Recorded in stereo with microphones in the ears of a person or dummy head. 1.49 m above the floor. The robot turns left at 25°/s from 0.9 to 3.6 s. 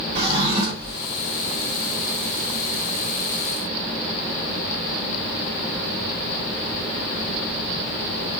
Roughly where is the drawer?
Right.